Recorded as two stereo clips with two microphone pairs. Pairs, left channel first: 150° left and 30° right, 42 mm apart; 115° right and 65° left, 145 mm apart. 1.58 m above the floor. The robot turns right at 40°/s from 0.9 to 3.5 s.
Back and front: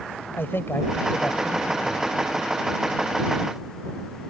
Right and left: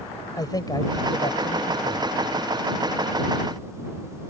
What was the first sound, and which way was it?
A man speaking, 175° right.